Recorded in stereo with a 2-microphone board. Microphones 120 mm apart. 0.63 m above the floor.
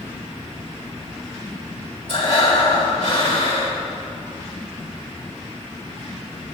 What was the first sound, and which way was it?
Breathing, 65° left (ahead or behind).